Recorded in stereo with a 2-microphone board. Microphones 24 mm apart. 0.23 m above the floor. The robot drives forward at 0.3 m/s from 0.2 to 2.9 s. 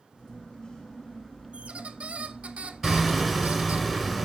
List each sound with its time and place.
1.5 s a squeak: 65° right (ahead or behind), 0.8 m; by 3.8 s 75° right (ahead or behind), 0.7 m
2.8 s hammering: 5° right (ahead or behind), 2 m